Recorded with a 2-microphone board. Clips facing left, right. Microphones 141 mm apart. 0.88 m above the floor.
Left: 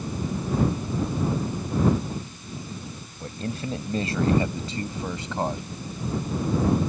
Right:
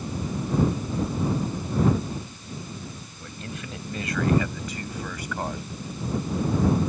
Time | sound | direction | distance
3.2 | a man speaking | 35° left (ahead or behind) | ?